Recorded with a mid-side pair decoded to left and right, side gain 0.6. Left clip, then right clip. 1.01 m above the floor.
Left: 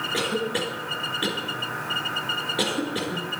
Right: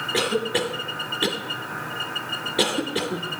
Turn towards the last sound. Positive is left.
turn(degrees=-25)